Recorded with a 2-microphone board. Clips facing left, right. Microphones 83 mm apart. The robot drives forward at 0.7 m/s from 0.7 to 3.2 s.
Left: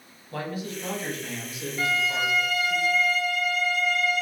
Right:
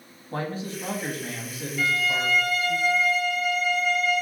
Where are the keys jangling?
I don't hear keys jangling.